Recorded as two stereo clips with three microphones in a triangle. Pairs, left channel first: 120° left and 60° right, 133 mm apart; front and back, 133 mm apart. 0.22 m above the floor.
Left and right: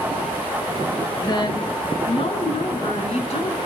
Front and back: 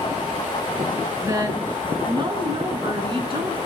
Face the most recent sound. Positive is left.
turn(degrees=140)